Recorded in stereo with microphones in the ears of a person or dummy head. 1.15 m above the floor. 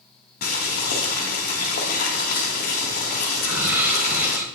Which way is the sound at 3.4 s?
15° right (ahead or behind).